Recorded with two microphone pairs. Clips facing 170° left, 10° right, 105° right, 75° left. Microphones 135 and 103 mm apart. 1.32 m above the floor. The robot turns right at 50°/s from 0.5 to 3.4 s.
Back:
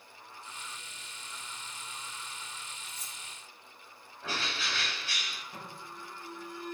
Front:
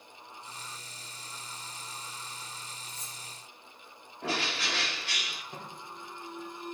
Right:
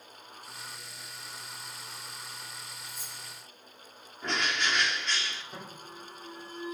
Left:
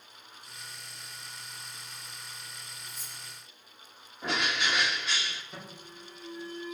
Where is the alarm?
45° right, 8.5 m.